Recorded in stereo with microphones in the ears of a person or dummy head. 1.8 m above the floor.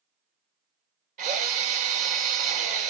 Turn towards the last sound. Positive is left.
turn(degrees=-50)  # may be behind; listen again after turning